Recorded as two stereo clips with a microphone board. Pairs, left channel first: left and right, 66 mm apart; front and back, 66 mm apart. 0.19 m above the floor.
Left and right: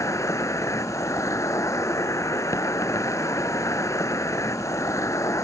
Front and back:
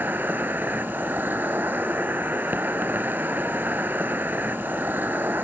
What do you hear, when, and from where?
0.0 s an insect: 120° left, 0.9 m